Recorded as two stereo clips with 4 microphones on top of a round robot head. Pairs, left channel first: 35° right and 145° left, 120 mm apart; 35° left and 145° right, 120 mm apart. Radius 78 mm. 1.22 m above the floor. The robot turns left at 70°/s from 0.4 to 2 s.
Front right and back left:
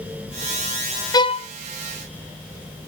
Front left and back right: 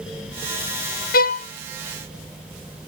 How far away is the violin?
About 0.6 m.